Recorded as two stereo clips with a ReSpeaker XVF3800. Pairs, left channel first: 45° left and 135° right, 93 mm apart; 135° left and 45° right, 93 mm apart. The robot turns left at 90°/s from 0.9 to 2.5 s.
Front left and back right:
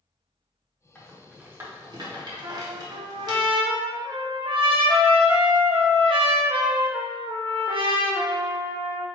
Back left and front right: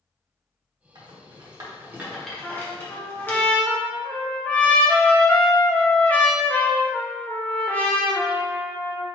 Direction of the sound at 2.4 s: 145° right.